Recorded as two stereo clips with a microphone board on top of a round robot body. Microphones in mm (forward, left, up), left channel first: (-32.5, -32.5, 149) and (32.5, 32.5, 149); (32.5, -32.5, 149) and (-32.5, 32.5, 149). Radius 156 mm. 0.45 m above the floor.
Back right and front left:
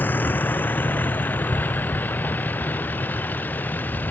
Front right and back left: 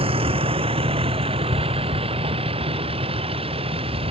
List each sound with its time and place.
0.0 s a vehicle: 155° left